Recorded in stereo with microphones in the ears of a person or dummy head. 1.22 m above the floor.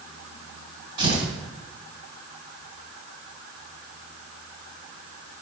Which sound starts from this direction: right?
Tearing paper, at 1.0 s.